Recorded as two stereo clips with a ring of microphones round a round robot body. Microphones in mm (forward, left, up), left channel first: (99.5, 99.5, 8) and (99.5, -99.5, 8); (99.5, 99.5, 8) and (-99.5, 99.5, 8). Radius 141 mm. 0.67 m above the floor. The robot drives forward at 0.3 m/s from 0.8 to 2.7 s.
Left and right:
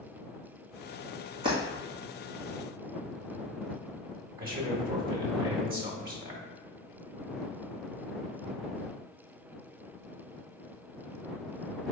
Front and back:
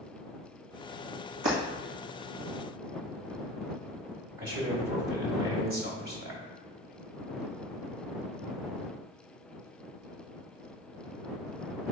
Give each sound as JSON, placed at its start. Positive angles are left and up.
{"t": 1.4, "sound": "breaking glass", "azimuth_deg": -140, "distance_m": 1.8}
{"t": 4.4, "sound": "a man speaking", "azimuth_deg": -140, "distance_m": 1.3}